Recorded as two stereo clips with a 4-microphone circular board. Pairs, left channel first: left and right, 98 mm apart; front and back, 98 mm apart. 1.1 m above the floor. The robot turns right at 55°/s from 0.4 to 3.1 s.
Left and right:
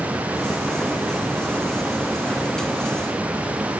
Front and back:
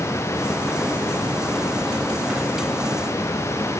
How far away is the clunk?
No clunk in this recording.